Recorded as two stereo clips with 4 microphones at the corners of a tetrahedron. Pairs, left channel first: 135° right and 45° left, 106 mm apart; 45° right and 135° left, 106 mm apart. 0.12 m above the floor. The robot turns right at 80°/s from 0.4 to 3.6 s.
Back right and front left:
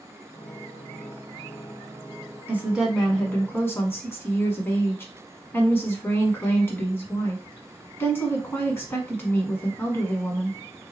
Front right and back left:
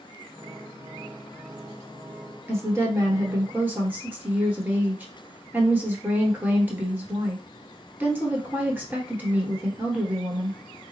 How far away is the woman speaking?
About 1.1 m.